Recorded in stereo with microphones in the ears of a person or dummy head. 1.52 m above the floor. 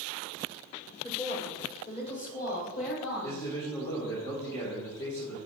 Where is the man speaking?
20° left (ahead or behind), 1.5 m.